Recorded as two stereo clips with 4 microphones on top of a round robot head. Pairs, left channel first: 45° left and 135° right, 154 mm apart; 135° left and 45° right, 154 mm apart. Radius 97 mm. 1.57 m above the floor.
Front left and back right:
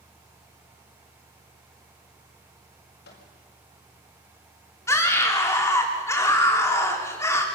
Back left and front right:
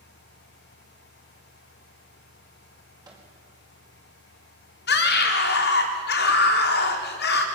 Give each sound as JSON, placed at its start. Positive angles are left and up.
{"t": 3.0, "sound": "a microwave", "azimuth_deg": 20, "distance_m": 5.0}
{"t": 4.9, "sound": "a scream", "azimuth_deg": 120, "distance_m": 3.5}